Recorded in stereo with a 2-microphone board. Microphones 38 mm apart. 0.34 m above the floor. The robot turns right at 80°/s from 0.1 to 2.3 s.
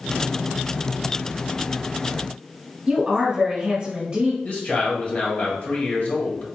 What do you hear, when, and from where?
2.9 s a woman speaking: 30° right (ahead or behind), 1.3 m
4.4 s a man speaking: 40° left (ahead or behind), 1.3 m